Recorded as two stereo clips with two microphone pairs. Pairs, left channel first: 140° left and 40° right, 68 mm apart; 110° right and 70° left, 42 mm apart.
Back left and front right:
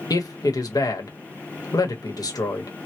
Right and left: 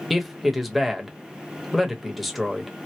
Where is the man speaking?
160° left, 0.9 m.